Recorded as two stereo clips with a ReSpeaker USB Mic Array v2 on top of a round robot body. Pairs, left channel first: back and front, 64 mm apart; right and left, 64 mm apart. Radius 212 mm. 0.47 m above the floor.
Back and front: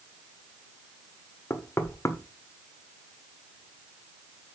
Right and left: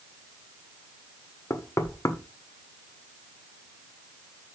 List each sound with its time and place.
1.5 s knocking: 130° right, 1.5 m